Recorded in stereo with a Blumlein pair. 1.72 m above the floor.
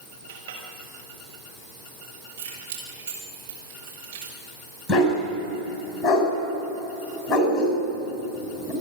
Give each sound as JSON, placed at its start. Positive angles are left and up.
{"t": 0.3, "sound": "a clink", "azimuth_deg": -50, "distance_m": 6.0}
{"t": 2.4, "sound": "keys jangling", "azimuth_deg": -45, "distance_m": 6.0}
{"t": 4.9, "sound": "a dog barking", "azimuth_deg": 15, "distance_m": 6.0}